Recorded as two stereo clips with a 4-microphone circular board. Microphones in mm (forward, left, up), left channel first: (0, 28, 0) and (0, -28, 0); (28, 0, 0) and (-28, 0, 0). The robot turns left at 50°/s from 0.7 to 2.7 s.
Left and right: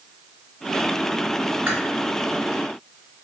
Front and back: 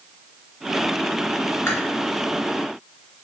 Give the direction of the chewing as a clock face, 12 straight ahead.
1 o'clock.